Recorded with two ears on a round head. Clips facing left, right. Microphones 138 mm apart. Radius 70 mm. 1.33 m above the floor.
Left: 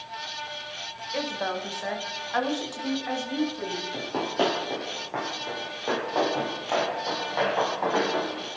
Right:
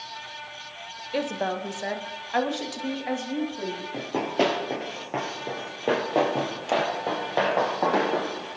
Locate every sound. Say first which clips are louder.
1.1 s a woman speaking: right 3 dB; 35° right (ahead or behind), 1.1 m; by 3.8 s 20° right (ahead or behind), 2.5 m
3.9 s running footsteps: right 2 dB; 10° right (ahead or behind), 1.8 m; by 8.5 s 50° right (ahead or behind), 4 m